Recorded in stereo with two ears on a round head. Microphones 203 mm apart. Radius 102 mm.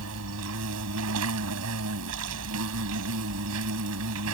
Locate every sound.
0.0 s an insect: 70° right (ahead or behind)